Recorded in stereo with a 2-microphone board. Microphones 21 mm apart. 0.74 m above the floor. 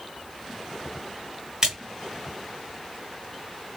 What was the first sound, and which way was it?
A splash, 30° right (ahead or behind).